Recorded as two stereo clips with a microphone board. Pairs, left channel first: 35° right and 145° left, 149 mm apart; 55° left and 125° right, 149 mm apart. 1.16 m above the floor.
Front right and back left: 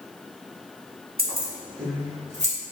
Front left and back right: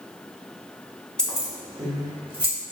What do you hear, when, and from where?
1.2 s keys jangling: 140° left, 0.9 m; by 2.5 s 175° right, 1.2 m